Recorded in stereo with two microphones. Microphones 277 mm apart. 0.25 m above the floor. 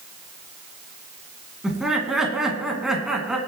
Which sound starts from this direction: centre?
Laughter, at 1.6 s.